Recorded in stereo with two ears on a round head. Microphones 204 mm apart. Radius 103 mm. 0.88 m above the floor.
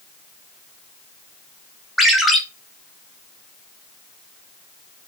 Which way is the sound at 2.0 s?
Centre (ahead or behind).